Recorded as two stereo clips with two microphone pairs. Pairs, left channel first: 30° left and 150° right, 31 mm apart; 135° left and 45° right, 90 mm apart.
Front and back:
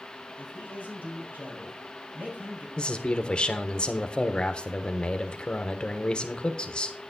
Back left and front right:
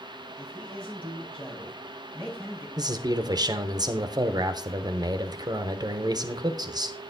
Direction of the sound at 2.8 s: 20° right.